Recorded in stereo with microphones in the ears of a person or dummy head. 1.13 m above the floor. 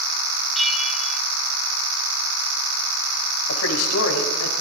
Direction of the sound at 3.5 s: 80° left.